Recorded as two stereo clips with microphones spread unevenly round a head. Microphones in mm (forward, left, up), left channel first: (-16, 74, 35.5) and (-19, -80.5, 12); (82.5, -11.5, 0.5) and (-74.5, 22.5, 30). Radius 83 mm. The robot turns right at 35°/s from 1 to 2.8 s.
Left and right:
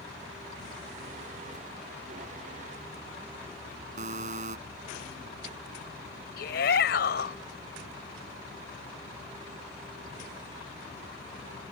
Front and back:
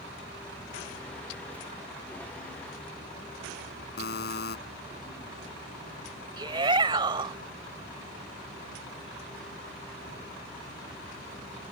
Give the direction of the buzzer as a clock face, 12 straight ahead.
1 o'clock.